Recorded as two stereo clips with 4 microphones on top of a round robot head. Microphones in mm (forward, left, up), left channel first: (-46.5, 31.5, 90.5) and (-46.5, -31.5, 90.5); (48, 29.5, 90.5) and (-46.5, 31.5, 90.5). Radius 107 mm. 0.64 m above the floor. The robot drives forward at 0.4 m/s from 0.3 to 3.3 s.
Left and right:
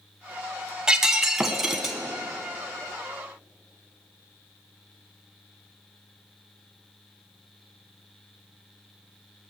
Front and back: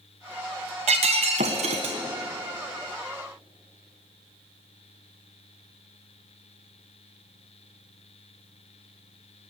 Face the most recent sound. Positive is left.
turn(degrees=-175)